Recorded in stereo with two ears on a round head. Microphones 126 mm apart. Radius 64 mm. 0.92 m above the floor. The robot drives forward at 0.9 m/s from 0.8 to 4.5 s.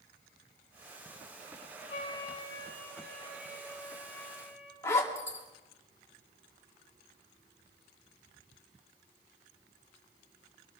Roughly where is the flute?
Left.